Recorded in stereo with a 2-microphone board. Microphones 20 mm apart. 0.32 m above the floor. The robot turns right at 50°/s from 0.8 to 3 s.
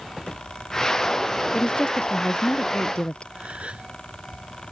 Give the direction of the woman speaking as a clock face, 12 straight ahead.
11 o'clock.